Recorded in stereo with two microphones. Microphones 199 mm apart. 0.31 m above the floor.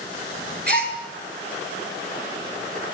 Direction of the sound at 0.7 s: 50° right (ahead or behind).